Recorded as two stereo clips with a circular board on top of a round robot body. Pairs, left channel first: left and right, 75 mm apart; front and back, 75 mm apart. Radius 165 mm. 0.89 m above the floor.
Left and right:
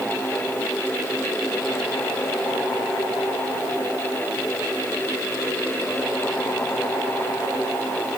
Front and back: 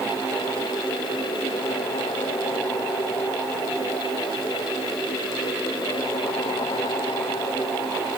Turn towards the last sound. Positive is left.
No sound to turn to.